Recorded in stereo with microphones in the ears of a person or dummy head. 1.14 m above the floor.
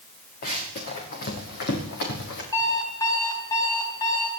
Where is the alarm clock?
20° left (ahead or behind), 4.5 m.